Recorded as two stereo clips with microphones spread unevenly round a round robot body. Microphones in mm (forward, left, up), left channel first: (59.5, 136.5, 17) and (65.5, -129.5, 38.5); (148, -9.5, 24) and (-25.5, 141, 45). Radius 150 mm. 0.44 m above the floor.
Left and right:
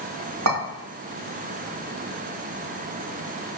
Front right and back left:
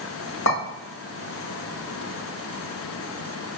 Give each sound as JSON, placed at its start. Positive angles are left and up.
{"t": 0.5, "sound": "a clink", "azimuth_deg": -70, "distance_m": 1.3}